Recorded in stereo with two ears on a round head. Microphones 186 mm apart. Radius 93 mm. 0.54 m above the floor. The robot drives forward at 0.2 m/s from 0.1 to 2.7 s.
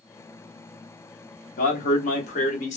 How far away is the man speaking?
About 0.8 m.